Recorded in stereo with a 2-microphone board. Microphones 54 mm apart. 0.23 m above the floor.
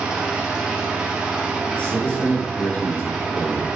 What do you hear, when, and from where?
0.0 s an engine running: 10° right (ahead or behind), 2.5 m
1.7 s a man speaking: 25° left (ahead or behind), 3.5 m